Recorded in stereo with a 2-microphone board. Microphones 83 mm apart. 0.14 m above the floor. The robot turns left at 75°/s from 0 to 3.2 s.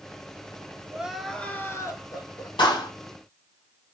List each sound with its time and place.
0.9 s crying: 160° right, 0.8 m; by 2.5 s 85° left, 0.8 m
2.6 s a clap: 65° left (ahead or behind), 3 m; by 2.9 s 70° left (ahead or behind), 3 m